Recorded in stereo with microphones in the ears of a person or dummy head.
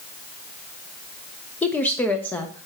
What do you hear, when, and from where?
1.6 s a woman speaking: 10° left (ahead or behind), 0.9 m